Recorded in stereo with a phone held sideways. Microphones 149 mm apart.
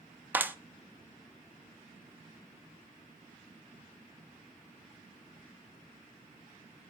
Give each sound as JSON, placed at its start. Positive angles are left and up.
{"t": 0.3, "sound": "a clap", "side_deg": -10, "distance_m": 0.7}